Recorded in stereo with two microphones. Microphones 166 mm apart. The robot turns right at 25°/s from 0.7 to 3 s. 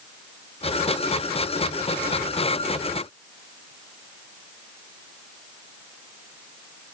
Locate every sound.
Only background noise.